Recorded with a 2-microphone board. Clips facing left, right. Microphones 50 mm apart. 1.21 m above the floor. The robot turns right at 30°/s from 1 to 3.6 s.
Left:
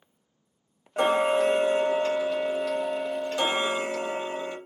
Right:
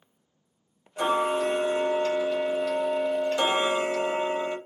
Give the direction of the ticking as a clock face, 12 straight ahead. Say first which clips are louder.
Left 2 dB; 8 o'clock.